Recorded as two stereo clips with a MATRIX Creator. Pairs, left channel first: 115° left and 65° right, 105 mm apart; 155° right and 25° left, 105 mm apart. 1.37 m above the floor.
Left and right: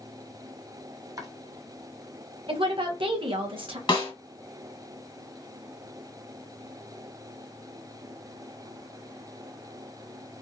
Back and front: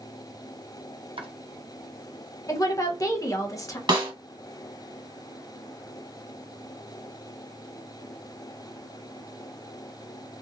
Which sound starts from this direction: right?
A woman speaking, at 2.5 s.